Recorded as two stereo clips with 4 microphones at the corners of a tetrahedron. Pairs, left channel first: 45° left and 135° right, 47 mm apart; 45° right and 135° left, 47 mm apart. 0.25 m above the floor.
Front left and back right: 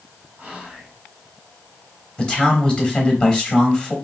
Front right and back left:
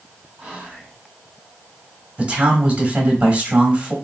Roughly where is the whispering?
Behind.